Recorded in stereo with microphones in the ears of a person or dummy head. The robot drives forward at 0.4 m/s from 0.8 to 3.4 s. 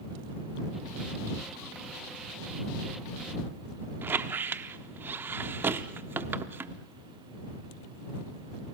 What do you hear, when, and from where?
4.0 s a squeak: 10° right (ahead or behind), 0.7 m